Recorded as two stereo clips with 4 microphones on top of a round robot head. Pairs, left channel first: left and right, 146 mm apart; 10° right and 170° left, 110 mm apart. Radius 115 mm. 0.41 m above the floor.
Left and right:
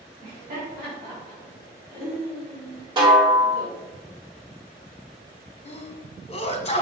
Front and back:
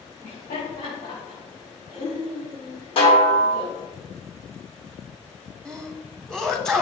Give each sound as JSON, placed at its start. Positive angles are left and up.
{"t": 0.2, "sound": "laughter", "azimuth_deg": -35, "distance_m": 3.5}
{"t": 3.0, "sound": "a snare drum", "azimuth_deg": -35, "distance_m": 2.0}
{"t": 5.7, "sound": "a sneeze", "azimuth_deg": 75, "distance_m": 1.6}